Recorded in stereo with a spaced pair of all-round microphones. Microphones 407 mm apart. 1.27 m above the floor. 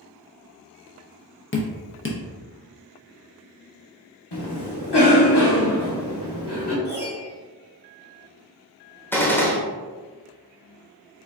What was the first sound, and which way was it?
Dripping, 30° left (ahead or behind).